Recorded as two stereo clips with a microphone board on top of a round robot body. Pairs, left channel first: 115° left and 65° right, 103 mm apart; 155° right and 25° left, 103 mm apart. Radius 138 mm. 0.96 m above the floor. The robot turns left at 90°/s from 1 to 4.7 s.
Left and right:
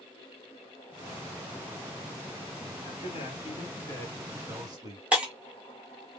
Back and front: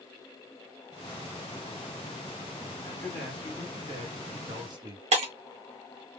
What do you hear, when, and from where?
2.8 s a man speaking: 150° left, 2.5 m; by 5.0 s 15° right, 2.5 m
5.1 s breaking glass: 10° left, 1.6 m